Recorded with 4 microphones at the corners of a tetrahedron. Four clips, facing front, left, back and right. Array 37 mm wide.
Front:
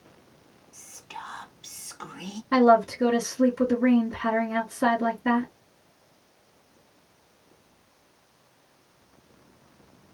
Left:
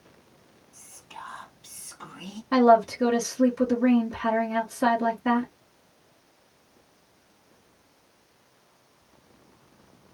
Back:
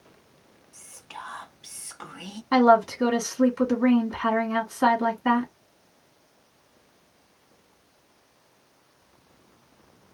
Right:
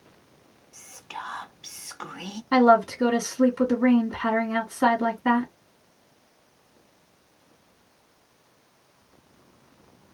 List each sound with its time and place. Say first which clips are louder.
0.7 s whispering: right 6 dB, even; 100° right, 0.7 m
2.5 s a woman speaking: even, back 1 dB; 155° right, 1.8 m